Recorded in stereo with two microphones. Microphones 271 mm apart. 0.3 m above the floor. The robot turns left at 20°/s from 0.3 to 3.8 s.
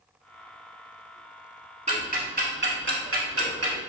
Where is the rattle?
I don't hear a rattle.